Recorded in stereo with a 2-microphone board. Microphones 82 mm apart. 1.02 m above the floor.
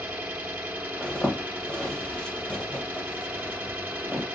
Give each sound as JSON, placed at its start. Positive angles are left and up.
{"t": 0.0, "sound": "an engine running", "side_deg": -20, "distance_m": 0.8}
{"t": 1.0, "sound": "a zipper", "side_deg": 10, "distance_m": 0.8}